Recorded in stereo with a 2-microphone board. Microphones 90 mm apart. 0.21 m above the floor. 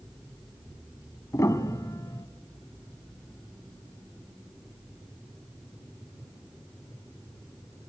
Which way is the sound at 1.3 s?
40° left (ahead or behind).